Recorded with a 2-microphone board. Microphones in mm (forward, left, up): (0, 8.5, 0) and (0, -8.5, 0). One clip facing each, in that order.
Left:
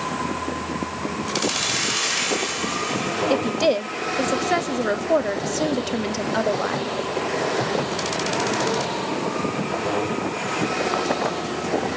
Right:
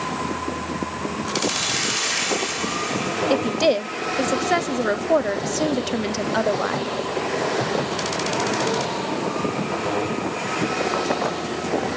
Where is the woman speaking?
5° right (ahead or behind), 0.5 m.